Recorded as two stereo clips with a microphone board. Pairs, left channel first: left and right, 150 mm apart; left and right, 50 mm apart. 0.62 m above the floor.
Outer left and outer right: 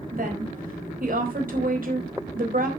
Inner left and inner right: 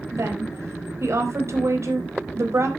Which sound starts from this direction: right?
A woman speaking, at 0.1 s.